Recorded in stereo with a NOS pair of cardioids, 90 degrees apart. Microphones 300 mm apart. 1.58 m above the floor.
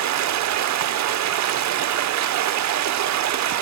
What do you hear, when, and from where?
0.0 s running water: 65° right, 0.9 m